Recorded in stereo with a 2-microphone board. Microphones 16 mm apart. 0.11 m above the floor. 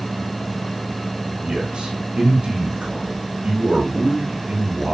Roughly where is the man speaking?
Right.